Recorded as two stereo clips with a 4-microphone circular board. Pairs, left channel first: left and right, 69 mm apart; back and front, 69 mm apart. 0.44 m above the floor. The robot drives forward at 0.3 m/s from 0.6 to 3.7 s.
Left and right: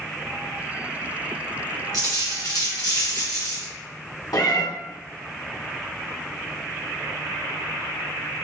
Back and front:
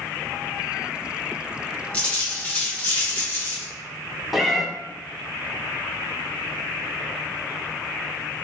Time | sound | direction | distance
1.9 | a dropped coin | 110° left | 2.0 m
4.3 | a cat meowing | 90° left | 0.6 m